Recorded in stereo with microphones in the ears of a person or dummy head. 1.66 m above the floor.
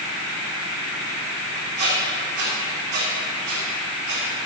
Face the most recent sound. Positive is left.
turn(degrees=-55)  # may be behind; listen again after turning